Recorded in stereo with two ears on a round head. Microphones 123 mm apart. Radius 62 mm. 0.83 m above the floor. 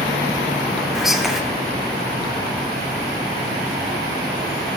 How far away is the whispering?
About 0.7 m.